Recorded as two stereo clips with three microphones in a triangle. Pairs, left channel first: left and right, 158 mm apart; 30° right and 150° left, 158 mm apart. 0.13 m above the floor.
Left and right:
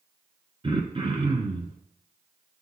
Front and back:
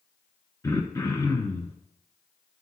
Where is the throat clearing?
85° right, 1.1 m.